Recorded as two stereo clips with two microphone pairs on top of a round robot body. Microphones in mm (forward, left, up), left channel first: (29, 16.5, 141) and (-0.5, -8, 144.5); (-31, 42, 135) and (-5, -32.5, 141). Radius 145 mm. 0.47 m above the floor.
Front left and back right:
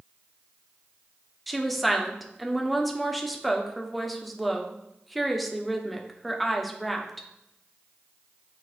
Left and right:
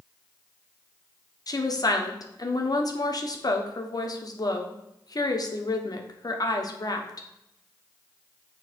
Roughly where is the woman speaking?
Behind left.